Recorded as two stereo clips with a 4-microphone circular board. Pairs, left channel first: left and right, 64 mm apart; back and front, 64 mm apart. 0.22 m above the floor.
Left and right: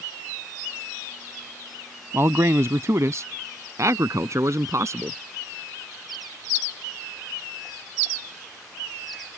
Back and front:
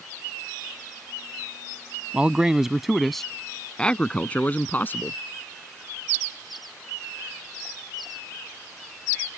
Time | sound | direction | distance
2.1 | a man speaking | 65° right | ?